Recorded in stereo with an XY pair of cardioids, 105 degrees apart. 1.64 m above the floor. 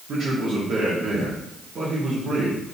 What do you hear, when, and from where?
0.1 s a man speaking: 55° right, 2 m